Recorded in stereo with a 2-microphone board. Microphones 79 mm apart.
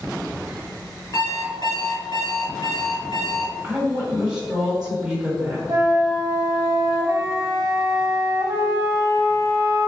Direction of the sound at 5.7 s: 45° right (ahead or behind).